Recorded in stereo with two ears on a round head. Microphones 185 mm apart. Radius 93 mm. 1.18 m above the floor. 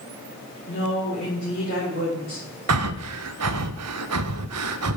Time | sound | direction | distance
0.7 | a woman speaking | 65° left (ahead or behind) | 4 m
2.7 | breathing | 80° right | 0.5 m